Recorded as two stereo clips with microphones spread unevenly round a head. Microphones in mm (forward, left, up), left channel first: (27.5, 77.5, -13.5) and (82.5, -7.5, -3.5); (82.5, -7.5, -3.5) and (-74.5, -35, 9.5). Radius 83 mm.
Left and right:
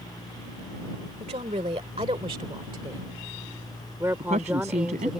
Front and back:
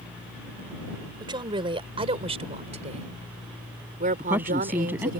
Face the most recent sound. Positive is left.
turn(degrees=-90)